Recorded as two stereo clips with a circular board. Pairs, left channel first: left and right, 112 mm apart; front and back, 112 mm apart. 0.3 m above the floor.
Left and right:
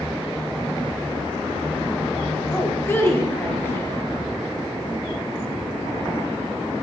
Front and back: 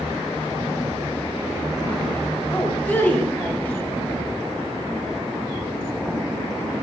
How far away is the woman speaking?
About 1.3 m.